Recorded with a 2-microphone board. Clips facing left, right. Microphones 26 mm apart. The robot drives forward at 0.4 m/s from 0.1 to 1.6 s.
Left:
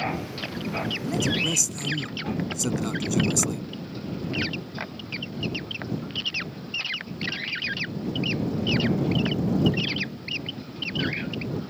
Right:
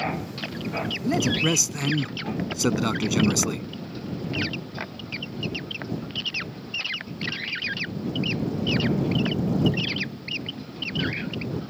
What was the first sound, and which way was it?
A man speaking, 40° right (ahead or behind).